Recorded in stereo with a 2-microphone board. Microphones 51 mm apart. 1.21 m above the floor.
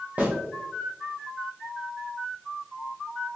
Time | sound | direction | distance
0.2 | a snare drum | 35° right (ahead or behind) | 1.1 m